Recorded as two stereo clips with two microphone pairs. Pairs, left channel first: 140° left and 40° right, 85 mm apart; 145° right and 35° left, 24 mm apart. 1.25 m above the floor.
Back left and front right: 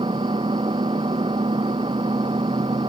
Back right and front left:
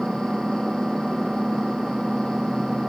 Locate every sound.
0.0 s an engine running: 40° right